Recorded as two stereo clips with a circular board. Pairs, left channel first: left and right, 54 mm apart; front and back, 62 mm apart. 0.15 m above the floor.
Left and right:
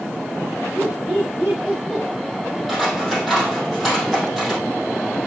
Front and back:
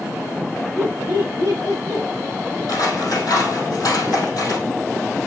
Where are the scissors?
Straight ahead, 5 m.